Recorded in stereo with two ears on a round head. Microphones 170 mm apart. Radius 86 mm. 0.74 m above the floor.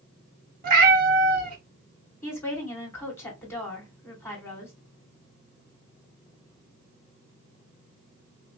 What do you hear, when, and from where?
0.6 s a cat meowing: 45° right (ahead or behind), 1.1 m
2.2 s a woman speaking: 15° left (ahead or behind), 2 m